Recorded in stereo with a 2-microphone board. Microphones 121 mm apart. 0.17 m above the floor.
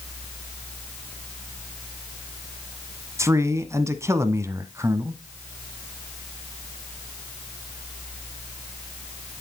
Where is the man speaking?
25° right (ahead or behind), 1.1 m.